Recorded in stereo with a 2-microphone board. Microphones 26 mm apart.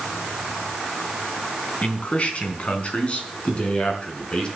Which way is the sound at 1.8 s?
55° left (ahead or behind).